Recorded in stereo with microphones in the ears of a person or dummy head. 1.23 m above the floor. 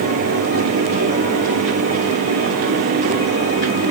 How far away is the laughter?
I don't hear laughter.